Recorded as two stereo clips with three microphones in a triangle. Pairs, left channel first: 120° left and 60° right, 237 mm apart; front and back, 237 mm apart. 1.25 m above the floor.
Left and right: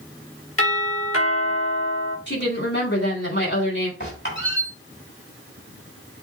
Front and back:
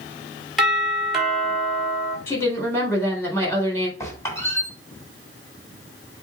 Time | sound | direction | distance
0.6 | a doorbell | 90° left | 3.5 m
2.3 | a woman speaking | 80° left | 4 m
4.0 | a squeak | 75° left | 3.5 m